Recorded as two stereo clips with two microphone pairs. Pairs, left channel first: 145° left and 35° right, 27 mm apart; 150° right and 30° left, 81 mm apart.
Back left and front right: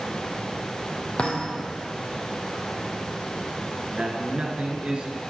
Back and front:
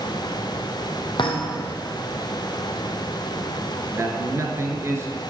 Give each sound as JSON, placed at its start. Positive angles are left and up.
{"t": 1.2, "sound": "a thud", "azimuth_deg": -165, "distance_m": 1.3}
{"t": 3.9, "sound": "a man speaking", "azimuth_deg": -15, "distance_m": 1.6}